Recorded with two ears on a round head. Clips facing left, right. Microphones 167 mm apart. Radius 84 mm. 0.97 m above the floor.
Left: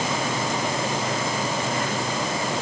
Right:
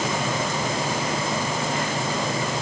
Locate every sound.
Only background noise.